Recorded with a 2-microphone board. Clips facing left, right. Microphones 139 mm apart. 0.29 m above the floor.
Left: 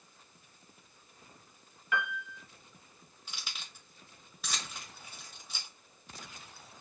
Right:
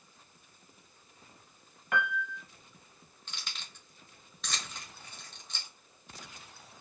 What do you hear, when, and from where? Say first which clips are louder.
1.9 s a piano: right 3 dB; 60° right (ahead or behind), 0.6 m
3.3 s keys jangling: even; 5° left (ahead or behind), 0.7 m